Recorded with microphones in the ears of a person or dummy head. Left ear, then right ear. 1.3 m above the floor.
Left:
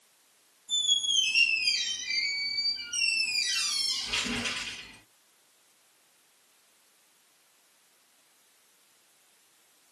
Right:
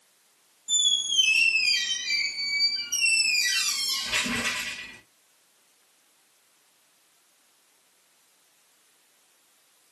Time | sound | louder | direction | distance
0.7 | a squeak | right 2 dB | 45° right (ahead or behind) | 1.7 m